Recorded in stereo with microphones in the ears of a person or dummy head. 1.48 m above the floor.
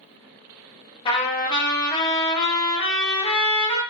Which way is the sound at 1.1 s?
25° left (ahead or behind).